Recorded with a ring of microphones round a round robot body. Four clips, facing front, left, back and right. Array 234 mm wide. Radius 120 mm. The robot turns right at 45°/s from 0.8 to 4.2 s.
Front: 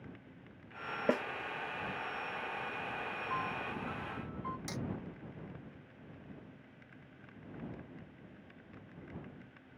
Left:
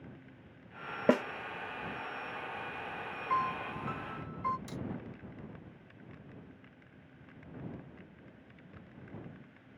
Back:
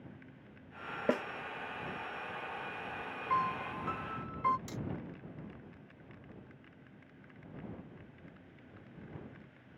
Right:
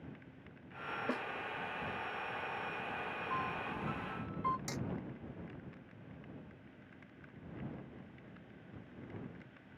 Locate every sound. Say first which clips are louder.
1.1 s a snare drum: left 13 dB, even; 90° left; by 1.2 s 95° left
3.3 s a piano: left 8 dB, back 7 dB; 135° left; by 4.6 s 175° left
4.7 s hammering: even, front 1 dB; 50° right